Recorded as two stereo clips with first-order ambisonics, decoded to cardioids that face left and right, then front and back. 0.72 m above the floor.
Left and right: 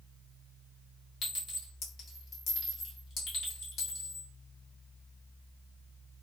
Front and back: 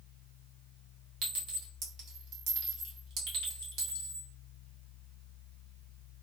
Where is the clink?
145° left, 1.3 m.